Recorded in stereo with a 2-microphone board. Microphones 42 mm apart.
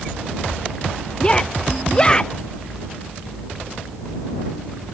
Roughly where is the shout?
Left.